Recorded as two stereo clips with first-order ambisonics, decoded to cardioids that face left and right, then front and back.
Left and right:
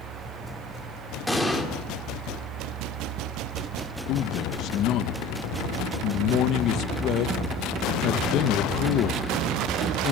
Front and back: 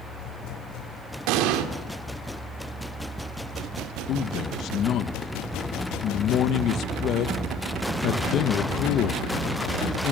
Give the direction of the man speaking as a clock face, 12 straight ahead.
10 o'clock.